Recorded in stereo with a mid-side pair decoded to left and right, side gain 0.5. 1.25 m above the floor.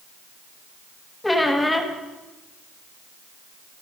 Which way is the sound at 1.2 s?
15° left.